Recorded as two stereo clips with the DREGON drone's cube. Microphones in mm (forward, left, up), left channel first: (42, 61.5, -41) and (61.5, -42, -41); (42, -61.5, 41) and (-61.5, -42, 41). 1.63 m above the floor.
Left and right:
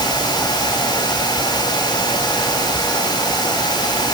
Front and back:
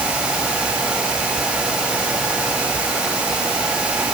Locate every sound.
Only background noise.